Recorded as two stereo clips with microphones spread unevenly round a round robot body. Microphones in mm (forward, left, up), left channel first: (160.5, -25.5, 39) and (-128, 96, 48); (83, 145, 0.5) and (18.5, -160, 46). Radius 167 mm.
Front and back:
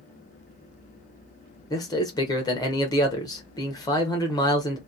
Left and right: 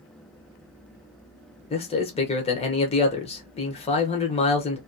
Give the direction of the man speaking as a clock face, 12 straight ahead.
11 o'clock.